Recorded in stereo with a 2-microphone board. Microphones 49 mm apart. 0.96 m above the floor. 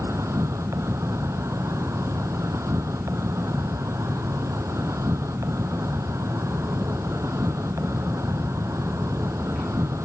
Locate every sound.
0.0 s an insect: 85° right